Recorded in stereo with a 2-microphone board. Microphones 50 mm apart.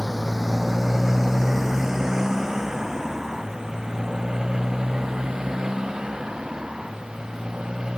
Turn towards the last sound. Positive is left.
turn(degrees=-15)  # may be behind; listen again after turning